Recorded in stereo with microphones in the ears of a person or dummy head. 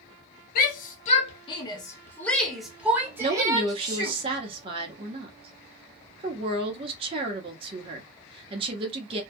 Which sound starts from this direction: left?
A shout, at 0.6 s.